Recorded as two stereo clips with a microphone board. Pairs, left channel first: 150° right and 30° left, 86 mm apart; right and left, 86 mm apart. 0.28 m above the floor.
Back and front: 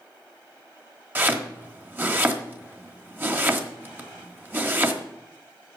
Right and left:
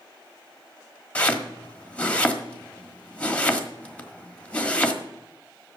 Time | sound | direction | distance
1.1 | chopping | 20° right | 1.3 m